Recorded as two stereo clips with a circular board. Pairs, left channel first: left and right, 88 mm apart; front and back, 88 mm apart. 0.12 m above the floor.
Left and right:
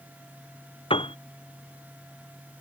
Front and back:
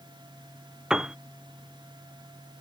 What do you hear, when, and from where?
0.9 s a piano: 100° left